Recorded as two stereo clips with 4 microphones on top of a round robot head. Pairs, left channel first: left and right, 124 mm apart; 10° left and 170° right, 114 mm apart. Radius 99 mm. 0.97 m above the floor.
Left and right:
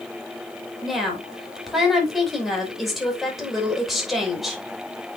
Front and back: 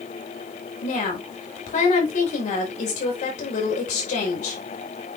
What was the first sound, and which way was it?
A woman speaking, straight ahead.